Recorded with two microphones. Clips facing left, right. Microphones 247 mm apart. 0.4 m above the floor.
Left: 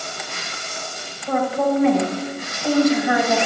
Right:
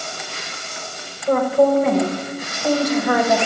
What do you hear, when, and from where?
1.3 s a woman speaking: 50° right (ahead or behind), 1.7 m